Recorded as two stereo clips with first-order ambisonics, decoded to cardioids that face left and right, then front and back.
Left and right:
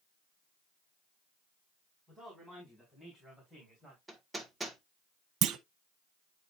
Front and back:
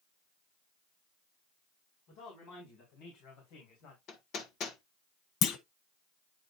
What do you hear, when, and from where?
2.1 s a man speaking: 5° left, 4.5 m; by 4.0 s 15° right, 3 m
4.1 s hammering: 10° right, 1.3 m
5.4 s a clunk: 45° right, 0.7 m